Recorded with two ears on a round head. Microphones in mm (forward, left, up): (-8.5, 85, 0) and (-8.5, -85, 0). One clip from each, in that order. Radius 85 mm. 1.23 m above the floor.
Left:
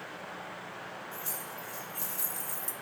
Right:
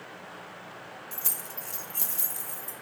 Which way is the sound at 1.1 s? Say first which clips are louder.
Right 2 dB; 65° right (ahead or behind).